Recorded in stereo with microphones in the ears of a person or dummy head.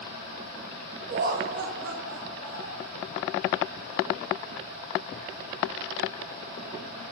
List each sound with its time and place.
1.1 s laughter: 45° right (ahead or behind), 2.0 m; by 2.9 s 85° right, 3.5 m